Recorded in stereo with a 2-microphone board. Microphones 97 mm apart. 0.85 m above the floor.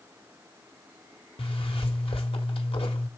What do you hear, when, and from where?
1.4 s a zipper: 75° left (ahead or behind), 1.4 m